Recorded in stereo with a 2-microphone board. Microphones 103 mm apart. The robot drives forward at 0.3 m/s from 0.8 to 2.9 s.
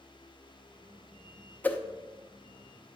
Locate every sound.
1.6 s a whoosh: 15° left (ahead or behind), 0.6 m